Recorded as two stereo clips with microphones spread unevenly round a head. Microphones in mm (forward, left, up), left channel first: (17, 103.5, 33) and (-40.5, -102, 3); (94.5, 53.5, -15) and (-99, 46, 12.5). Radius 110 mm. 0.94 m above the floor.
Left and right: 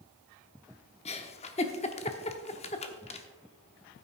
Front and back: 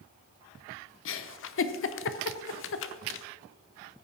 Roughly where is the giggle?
Ahead.